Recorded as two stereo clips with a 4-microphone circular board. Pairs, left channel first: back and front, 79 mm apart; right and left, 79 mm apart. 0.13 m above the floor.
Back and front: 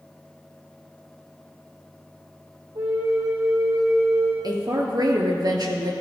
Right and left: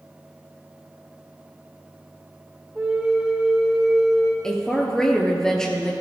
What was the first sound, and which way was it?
A flute, 15° left.